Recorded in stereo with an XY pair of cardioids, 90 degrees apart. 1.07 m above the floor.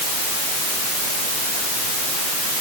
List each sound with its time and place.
Only background noise.